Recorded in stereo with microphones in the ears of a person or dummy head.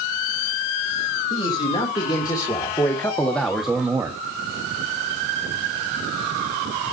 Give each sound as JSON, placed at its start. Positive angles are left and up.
{"t": 1.3, "sound": "a man speaking", "side_deg": 30, "distance_m": 3.5}